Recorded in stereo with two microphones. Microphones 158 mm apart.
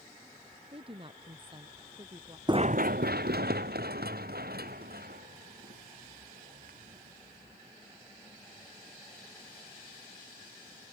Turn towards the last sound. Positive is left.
turn(degrees=-70)  # may be behind; listen again after turning